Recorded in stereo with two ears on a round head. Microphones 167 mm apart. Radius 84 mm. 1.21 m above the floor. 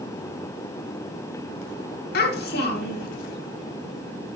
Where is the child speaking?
55° left (ahead or behind), 1.8 m.